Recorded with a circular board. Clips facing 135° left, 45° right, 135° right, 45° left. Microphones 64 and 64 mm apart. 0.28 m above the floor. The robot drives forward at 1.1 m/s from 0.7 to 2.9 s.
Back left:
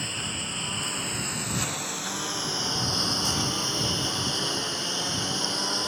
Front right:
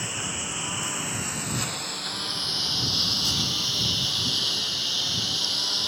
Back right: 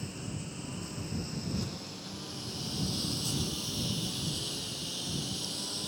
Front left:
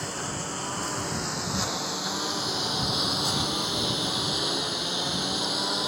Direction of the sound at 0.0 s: 35° left.